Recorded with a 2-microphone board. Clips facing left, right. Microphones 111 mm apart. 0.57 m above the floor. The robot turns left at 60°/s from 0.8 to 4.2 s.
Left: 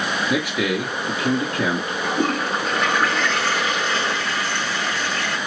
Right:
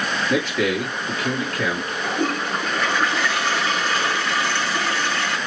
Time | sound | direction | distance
0.3 | a man speaking | 10° left (ahead or behind) | 1.1 m
2.0 | a toilet flushing | 65° left | 3 m